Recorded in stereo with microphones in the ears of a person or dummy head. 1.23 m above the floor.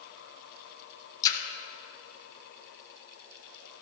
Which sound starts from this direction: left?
A splash, at 1.2 s.